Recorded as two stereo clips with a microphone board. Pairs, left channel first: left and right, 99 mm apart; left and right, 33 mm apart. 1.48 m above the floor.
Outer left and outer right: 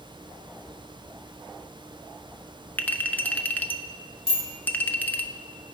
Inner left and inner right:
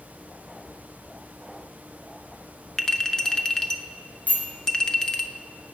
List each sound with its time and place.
2.8 s a clink: 20° left (ahead or behind), 0.7 m
4.3 s a bicycle bell: 70° left (ahead or behind), 3 m